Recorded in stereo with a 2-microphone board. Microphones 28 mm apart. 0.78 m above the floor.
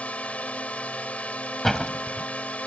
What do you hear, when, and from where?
0.0 s a drone: 55° left (ahead or behind); by 2.7 s 60° left (ahead or behind)
1.6 s a door slam: 15° left (ahead or behind)